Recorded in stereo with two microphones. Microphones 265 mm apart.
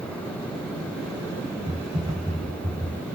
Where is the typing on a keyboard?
20° right (ahead or behind), 1.1 m.